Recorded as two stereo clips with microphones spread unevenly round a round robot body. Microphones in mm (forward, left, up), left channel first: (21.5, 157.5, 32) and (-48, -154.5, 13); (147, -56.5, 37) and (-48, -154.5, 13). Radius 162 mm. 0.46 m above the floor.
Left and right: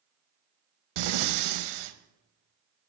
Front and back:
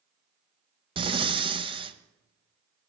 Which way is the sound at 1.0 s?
85° right.